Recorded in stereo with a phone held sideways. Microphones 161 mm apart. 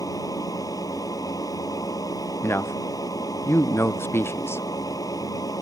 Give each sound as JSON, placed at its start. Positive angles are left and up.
{"t": 0.0, "sound": "a machine running", "side_deg": 20}
{"t": 2.4, "sound": "a man speaking", "side_deg": 15}